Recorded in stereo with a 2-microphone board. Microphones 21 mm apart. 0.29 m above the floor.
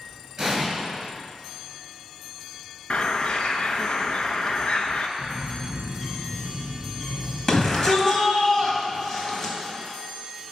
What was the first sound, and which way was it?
An explosion, 25° right (ahead or behind).